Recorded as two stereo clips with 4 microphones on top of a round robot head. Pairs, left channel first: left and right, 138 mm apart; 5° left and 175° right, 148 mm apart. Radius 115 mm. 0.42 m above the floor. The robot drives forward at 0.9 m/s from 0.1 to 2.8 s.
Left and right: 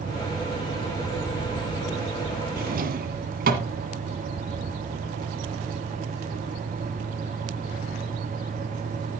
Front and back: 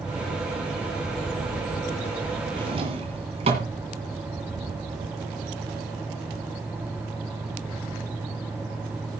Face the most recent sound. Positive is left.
turn(degrees=-120)